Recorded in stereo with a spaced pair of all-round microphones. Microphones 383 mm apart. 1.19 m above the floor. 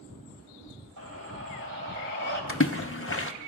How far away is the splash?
About 0.8 m.